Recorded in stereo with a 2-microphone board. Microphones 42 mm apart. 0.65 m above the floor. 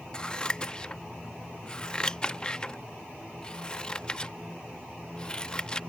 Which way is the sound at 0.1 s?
20° left (ahead or behind).